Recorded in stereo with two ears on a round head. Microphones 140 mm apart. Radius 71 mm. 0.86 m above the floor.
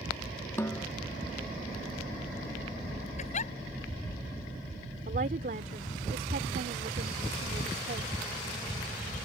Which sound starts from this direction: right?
A woman speaking, at 5.1 s.